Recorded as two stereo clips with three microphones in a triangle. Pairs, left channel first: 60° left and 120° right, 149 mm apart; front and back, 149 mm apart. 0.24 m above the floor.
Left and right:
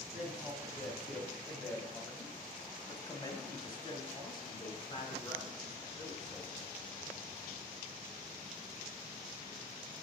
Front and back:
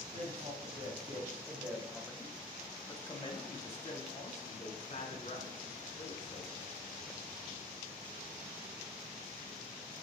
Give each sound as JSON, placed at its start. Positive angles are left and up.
{"t": 0.1, "sound": "a man speaking", "azimuth_deg": 160, "distance_m": 1.5}